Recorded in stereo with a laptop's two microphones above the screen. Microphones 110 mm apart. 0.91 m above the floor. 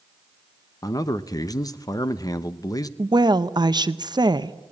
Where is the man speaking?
35° left (ahead or behind), 0.7 m.